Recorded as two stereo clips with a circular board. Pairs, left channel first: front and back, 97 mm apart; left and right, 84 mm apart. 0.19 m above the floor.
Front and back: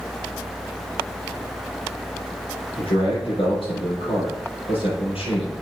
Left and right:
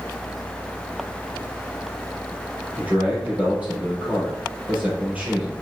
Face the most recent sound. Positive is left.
turn(degrees=-15)